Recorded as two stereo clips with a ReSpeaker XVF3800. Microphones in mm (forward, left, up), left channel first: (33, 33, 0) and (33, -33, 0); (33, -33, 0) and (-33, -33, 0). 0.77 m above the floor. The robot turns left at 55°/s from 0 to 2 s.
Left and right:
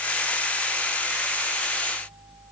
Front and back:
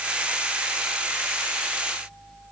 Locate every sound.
Only background noise.